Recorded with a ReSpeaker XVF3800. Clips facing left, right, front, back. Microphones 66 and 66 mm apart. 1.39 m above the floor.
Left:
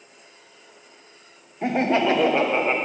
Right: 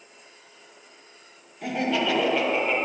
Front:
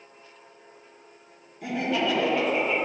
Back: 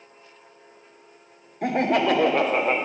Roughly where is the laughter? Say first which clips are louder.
Left 5 dB, back 5 dB; behind left.